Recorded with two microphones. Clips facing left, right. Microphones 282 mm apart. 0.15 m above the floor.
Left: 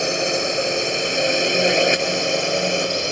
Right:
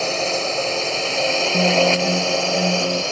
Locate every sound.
0.0 s a drone: 15° left (ahead or behind); by 3.1 s 20° left (ahead or behind)
1.5 s a guitar: 40° right (ahead or behind)